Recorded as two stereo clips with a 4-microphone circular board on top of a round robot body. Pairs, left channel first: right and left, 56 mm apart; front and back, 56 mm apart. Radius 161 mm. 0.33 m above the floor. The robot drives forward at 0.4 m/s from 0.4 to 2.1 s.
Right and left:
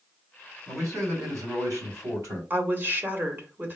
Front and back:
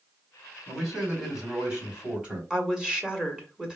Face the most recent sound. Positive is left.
turn(degrees=110)